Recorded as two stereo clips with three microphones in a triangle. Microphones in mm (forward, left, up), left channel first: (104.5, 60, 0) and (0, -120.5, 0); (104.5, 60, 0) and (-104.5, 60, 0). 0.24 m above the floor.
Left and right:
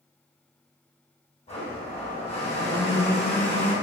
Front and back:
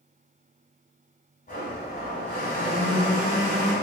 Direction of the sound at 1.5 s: 15° left.